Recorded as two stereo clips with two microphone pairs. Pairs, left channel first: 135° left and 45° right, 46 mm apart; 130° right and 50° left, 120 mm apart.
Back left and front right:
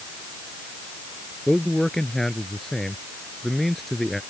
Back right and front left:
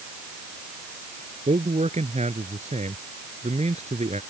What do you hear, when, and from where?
1.5 s a man speaking: 60° left; by 4.2 s 50° left